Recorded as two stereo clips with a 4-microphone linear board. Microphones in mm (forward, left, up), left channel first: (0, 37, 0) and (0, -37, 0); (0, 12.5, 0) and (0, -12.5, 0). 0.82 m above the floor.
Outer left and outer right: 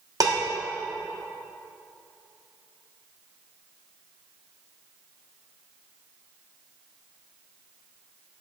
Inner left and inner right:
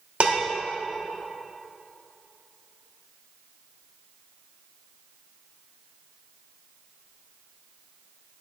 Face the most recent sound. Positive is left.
turn(degrees=-55)  # may be behind; listen again after turning